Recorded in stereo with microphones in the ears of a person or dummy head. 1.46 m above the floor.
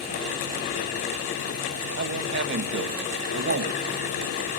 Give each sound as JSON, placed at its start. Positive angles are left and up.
{"t": 2.0, "sound": "a man speaking", "side_deg": -65, "distance_m": 1.7}